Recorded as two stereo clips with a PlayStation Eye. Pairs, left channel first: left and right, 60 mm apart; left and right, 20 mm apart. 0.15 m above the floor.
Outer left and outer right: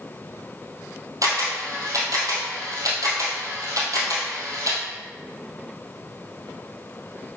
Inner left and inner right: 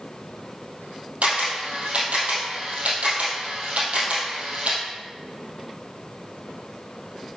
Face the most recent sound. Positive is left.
turn(degrees=-75)  # may be behind; listen again after turning